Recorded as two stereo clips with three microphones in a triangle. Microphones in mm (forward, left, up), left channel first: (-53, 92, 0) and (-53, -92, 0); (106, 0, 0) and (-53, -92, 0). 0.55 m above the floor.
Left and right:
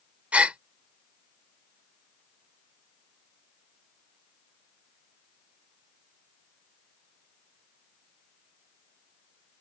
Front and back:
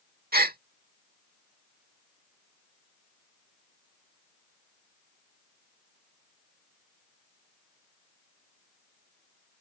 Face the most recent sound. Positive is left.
turn(degrees=-175)